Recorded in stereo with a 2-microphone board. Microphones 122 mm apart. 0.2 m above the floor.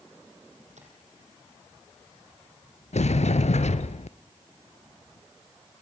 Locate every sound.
0.8 s tapping: 70° right (ahead or behind), 5.5 m
2.9 s a sliding door: 70° left (ahead or behind), 1.1 m